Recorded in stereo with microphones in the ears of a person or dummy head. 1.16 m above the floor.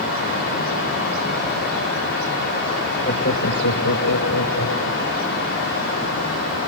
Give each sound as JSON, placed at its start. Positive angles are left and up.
{"t": 3.0, "sound": "laughter", "side_deg": 40, "distance_m": 1.1}